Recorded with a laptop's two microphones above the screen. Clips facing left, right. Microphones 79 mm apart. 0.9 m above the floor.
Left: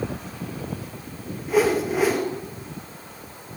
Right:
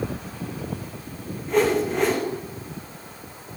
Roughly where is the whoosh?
Centre.